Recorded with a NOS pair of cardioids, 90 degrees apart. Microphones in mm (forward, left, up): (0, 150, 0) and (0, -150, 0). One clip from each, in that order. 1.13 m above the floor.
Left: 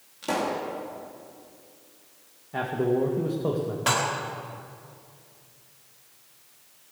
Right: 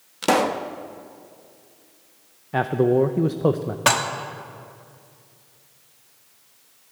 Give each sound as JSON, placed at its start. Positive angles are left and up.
{"t": 0.2, "sound": "a pop", "azimuth_deg": -70, "distance_m": 1.0}
{"t": 2.5, "sound": "a man speaking", "azimuth_deg": -45, "distance_m": 0.7}
{"t": 3.9, "sound": "dishes clattering", "azimuth_deg": -55, "distance_m": 1.5}